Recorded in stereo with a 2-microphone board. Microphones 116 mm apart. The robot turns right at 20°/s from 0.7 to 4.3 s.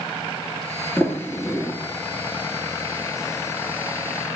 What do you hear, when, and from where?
1.0 s a sliding door: 10° left (ahead or behind), 1.9 m; by 1.7 s centre (ahead or behind), 1.9 m